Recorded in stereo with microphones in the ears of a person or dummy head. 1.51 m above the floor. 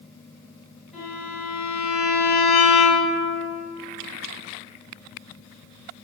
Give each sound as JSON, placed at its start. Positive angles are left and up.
{"t": 0.9, "sound": "a violin", "side_deg": -5, "distance_m": 1.7}